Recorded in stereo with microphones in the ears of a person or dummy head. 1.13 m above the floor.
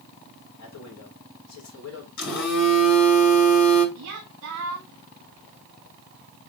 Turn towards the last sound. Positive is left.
turn(degrees=-50)  # may be behind; listen again after turning